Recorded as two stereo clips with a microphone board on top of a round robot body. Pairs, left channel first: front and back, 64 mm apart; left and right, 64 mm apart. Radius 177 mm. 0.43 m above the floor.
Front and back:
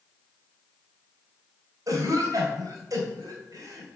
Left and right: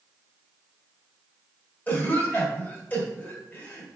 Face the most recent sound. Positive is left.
turn(degrees=150)